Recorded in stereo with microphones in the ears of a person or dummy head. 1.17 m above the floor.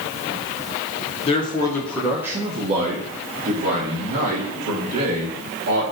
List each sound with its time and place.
1.3 s a man speaking: 30° left (ahead or behind), 0.7 m; by 5.8 s 70° right (ahead or behind), 2 m